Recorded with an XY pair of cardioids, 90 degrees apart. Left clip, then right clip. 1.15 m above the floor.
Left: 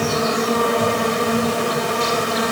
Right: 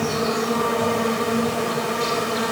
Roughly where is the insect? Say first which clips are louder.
Left 3 dB; ahead left.